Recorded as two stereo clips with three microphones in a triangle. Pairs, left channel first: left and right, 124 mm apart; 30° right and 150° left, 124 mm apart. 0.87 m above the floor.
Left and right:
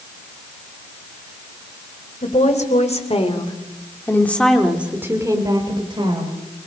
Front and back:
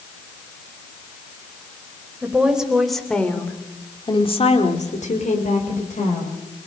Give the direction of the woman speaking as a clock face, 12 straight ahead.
10 o'clock.